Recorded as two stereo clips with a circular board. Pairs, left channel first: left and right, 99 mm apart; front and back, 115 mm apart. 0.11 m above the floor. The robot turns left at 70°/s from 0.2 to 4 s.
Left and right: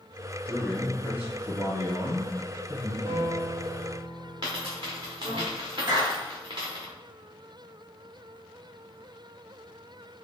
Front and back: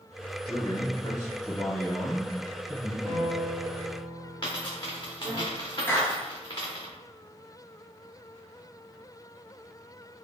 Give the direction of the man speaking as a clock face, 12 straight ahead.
11 o'clock.